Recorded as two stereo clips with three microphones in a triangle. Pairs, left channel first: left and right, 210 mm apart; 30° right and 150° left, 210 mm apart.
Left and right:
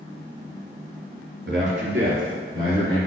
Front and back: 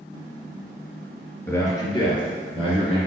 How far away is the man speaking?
About 2.5 m.